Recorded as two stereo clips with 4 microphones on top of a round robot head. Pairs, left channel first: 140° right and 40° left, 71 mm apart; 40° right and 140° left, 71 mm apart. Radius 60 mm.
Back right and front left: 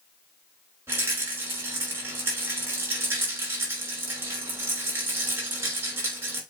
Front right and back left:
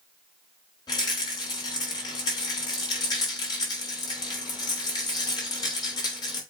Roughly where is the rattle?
Ahead.